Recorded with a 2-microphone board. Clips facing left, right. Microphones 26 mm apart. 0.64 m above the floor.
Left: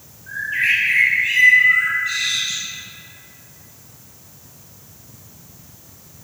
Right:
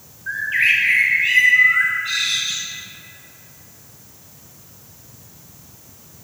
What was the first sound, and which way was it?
A bird, 55° right (ahead or behind).